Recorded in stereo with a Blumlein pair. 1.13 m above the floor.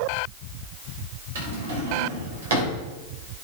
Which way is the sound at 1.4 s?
60° right.